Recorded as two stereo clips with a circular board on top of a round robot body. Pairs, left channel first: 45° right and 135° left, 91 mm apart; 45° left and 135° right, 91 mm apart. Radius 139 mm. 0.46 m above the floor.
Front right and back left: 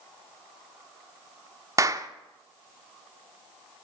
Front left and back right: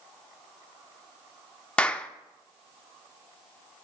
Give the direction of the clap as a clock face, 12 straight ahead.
8 o'clock.